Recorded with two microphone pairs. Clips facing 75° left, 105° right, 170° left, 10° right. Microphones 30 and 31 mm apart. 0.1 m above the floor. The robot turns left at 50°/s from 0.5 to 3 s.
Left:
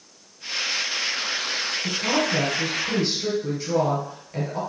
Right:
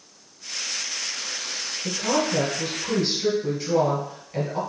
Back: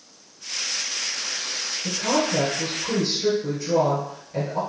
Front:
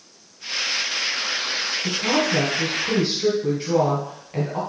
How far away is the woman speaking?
About 1.8 m.